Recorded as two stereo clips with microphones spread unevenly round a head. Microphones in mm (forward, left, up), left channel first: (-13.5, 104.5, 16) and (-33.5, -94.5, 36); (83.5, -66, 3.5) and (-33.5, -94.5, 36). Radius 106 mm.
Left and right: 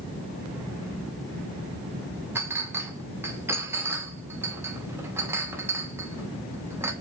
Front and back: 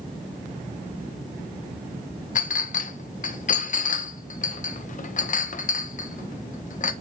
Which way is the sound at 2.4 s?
20° right.